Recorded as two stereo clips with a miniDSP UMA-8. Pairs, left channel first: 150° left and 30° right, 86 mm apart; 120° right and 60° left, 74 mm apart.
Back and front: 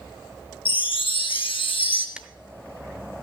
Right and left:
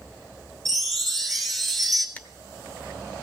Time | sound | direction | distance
0.7 | a chime | 155° left | 1.7 m
2.2 | tearing paper | 95° right | 0.8 m